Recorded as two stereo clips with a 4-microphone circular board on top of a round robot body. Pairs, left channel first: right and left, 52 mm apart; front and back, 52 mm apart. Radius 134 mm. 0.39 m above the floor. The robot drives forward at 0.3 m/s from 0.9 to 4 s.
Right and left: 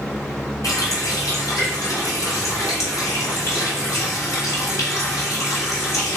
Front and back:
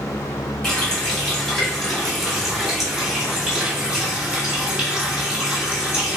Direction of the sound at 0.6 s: 80° right.